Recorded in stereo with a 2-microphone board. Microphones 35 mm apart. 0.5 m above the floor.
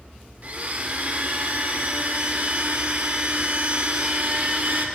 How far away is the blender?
About 1.3 m.